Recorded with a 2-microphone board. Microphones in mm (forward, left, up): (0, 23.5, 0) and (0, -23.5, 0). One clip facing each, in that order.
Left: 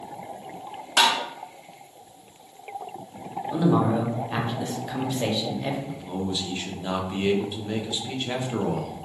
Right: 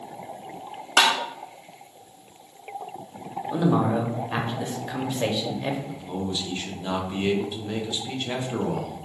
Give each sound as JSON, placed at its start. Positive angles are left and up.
{"t": 1.0, "sound": "tapping", "side_deg": -60, "distance_m": 0.6}
{"t": 3.5, "sound": "a man speaking", "side_deg": -10, "distance_m": 0.7}
{"t": 5.9, "sound": "a man speaking", "side_deg": 5, "distance_m": 0.6}